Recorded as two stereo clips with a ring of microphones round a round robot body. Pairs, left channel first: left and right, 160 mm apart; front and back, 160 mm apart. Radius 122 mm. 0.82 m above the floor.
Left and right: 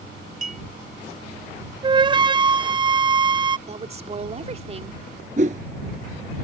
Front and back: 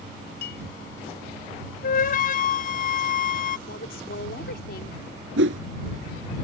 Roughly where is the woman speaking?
Ahead right.